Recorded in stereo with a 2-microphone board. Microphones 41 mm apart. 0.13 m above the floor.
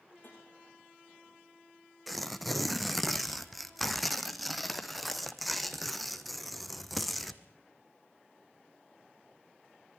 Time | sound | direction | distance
0.2 | tapping | 65° left (ahead or behind) | 9 m
2.1 | tearing paper | centre (ahead or behind) | 1.1 m